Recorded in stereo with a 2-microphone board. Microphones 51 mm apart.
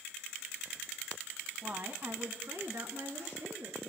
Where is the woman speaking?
35° right (ahead or behind), 1.3 m; by 3.9 s 75° right (ahead or behind), 4 m.